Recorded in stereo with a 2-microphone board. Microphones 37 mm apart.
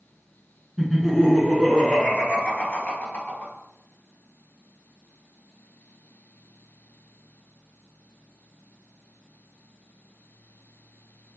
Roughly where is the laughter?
Centre.